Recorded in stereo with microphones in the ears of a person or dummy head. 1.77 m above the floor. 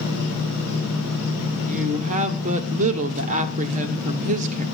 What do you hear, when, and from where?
1.7 s a woman speaking: 45° right (ahead or behind), 1.3 m